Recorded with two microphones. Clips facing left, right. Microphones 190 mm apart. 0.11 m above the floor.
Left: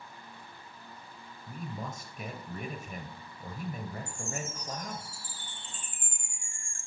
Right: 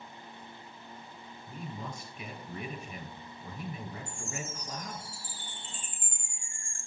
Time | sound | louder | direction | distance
1.5 | a man speaking | left 2 dB | 45° left (ahead or behind) | 2.0 m
4.1 | a chime | left 2 dB | 10° left (ahead or behind) | 5 m